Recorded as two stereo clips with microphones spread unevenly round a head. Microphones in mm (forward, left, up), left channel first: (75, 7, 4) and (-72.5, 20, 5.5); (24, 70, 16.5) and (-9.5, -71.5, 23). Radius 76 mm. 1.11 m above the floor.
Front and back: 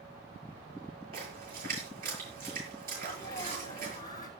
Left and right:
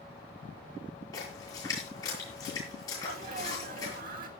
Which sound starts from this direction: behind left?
A splash, at 1.1 s.